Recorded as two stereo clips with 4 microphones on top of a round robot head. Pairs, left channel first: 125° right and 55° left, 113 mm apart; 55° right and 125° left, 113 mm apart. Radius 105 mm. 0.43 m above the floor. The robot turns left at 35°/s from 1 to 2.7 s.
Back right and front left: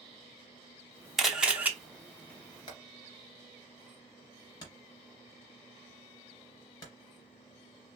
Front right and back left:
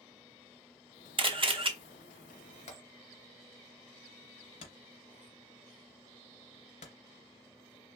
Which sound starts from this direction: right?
Hammering, at 2.7 s.